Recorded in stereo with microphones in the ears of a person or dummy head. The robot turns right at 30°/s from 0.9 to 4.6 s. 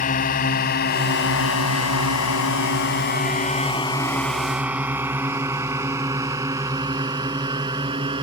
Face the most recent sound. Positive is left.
turn(degrees=-25)  # may be behind; listen again after turning